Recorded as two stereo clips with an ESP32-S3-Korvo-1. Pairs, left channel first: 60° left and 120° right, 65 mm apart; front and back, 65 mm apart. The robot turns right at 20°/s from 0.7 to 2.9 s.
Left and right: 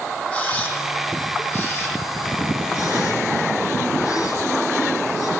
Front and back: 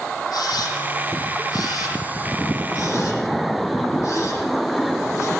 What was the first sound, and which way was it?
A camera shutter, 15° right.